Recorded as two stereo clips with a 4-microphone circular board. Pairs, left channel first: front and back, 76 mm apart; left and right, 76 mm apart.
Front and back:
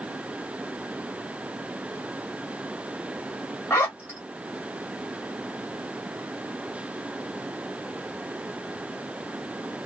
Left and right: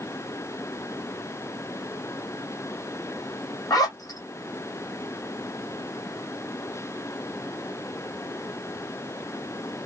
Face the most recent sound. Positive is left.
turn(degrees=60)